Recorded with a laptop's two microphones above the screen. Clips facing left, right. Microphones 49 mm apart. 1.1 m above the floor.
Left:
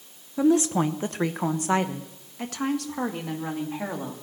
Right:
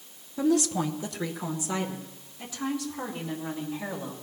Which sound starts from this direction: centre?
A woman speaking, at 0.4 s.